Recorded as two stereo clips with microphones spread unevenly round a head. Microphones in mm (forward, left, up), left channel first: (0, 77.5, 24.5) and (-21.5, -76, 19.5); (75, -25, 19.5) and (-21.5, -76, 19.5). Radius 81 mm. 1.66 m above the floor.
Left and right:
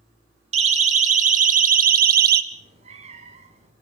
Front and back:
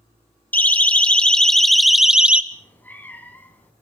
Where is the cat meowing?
45° right, 4.5 m.